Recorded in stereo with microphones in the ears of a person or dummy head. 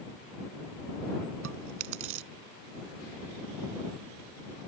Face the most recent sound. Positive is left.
turn(degrees=-70)  # may be behind; listen again after turning